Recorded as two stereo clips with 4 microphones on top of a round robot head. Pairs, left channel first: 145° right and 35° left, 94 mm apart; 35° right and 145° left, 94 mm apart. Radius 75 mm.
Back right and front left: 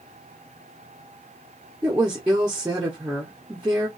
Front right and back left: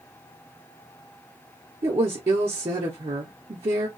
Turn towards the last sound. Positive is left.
turn(degrees=110)